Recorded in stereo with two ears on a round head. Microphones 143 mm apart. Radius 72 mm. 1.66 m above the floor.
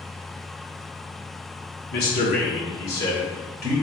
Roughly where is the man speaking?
Left.